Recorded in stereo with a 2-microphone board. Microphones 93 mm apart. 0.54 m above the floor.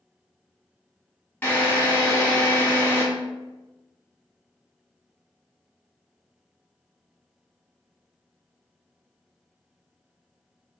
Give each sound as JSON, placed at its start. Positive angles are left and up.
{"t": 1.4, "sound": "a drill", "side_deg": 20, "distance_m": 0.8}